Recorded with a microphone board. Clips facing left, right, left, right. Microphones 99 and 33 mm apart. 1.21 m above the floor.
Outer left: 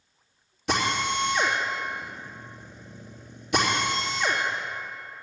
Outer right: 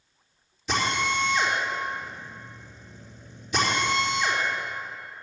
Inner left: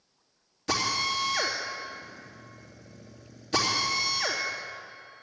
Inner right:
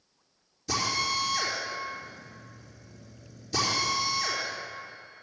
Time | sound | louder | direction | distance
0.7 | a drill | even, inner left 1 dB | 70° left (ahead or behind) | 3 m